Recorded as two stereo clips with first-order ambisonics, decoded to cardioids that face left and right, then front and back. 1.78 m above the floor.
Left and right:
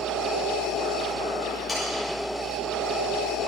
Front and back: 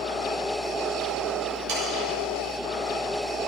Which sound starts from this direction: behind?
Sawing, at 1.7 s.